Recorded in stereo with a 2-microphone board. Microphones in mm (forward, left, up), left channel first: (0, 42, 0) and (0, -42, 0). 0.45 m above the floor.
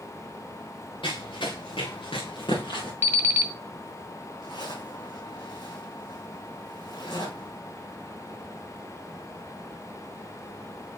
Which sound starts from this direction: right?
An alarm clock, at 3.0 s.